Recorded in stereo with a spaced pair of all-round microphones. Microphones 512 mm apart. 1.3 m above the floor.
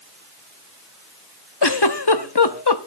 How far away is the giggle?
About 1.0 m.